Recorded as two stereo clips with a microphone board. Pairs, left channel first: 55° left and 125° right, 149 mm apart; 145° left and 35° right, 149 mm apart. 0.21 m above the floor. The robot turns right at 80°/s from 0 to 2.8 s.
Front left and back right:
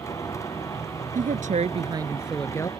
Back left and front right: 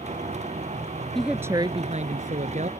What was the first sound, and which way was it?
A woman speaking, 130° right.